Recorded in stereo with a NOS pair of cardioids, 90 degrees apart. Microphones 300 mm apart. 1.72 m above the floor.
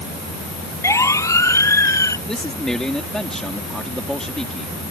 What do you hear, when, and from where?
0.8 s a siren: 10° left
2.3 s a man speaking: straight ahead